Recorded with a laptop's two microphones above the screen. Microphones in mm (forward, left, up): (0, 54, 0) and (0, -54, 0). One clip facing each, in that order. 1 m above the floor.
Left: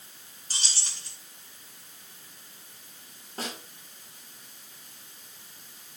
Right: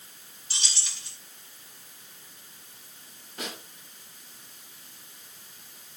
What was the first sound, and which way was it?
Keys jangling, 45° left (ahead or behind).